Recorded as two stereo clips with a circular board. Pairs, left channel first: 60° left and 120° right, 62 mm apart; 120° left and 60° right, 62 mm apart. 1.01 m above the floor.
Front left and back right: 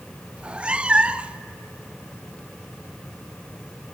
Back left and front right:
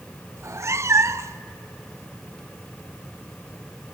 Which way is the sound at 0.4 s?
50° right.